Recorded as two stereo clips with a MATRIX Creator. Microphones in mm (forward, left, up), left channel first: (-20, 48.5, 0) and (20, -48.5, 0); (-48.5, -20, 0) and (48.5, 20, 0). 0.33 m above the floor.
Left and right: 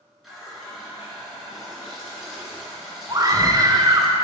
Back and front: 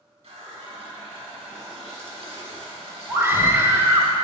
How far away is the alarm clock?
No alarm clock in this recording.